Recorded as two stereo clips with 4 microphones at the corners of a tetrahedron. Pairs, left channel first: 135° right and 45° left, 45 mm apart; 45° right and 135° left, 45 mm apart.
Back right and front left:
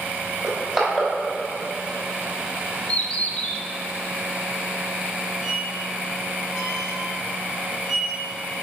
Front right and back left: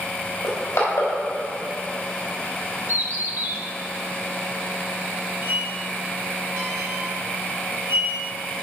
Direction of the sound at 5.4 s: 150° left.